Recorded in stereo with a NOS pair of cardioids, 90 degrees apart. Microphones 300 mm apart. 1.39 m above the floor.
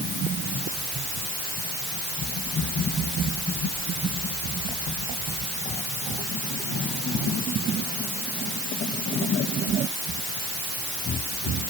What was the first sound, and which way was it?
Only background noise.